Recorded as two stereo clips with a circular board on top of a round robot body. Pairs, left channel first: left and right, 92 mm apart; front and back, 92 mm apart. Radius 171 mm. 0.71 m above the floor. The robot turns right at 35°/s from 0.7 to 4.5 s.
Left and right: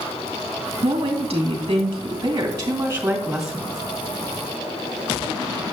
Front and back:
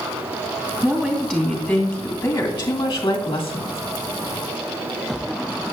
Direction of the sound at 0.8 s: 100° right.